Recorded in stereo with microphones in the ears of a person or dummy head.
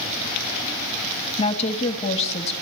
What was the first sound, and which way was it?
A woman speaking, 30° left (ahead or behind).